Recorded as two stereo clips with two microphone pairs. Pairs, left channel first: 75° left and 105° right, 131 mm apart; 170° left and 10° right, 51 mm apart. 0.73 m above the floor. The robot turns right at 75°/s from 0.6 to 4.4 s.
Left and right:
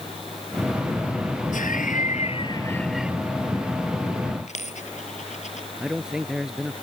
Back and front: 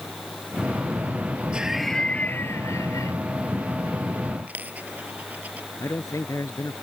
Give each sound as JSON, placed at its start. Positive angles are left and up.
{"t": 1.5, "sound": "laughter", "azimuth_deg": 55}
{"t": 4.5, "sound": "a dropped coin", "azimuth_deg": 45}
{"t": 5.8, "sound": "a man speaking", "azimuth_deg": 170}